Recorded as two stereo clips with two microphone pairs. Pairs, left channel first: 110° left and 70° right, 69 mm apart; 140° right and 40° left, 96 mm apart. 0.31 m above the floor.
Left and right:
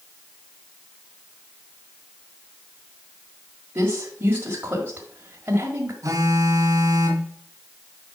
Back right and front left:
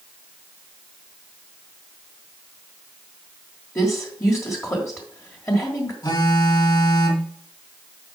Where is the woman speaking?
105° right, 1.5 m.